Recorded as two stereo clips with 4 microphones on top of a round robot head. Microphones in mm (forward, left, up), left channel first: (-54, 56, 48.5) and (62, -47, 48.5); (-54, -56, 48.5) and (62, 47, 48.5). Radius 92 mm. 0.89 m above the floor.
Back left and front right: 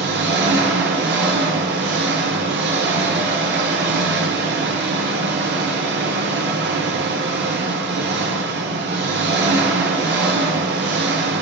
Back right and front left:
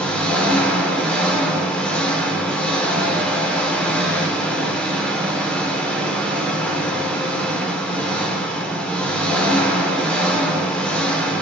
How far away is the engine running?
About 1.4 m.